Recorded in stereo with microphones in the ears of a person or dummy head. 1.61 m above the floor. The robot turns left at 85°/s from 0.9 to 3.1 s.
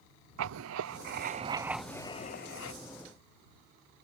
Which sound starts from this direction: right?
Writing, at 0.4 s.